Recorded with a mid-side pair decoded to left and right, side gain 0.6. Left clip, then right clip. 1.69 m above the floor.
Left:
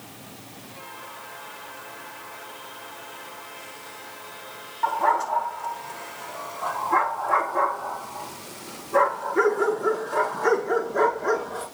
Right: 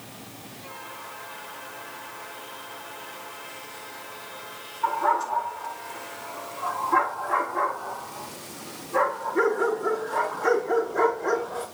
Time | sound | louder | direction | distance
4.8 | a dog barking | left 2 dB | 55° left | 5 m